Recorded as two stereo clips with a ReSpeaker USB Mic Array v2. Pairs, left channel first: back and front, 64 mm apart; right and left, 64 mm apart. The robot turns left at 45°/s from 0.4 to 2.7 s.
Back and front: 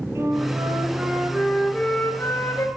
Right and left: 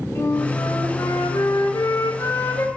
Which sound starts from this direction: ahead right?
A flute, at 0.1 s.